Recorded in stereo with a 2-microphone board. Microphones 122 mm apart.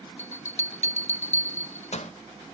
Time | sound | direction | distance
0.2 | a bell | 65° left (ahead or behind) | 0.5 m